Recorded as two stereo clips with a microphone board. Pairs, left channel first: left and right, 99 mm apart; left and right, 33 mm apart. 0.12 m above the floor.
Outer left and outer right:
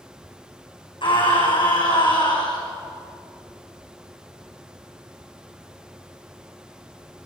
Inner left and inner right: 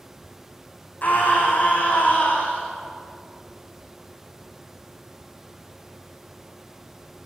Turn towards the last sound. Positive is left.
turn(degrees=55)  # may be behind; listen again after turning